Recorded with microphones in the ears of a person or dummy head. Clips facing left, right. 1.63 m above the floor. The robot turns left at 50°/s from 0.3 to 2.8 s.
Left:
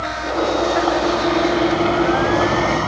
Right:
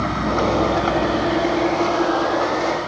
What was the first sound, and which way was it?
A vehicle, 120° right.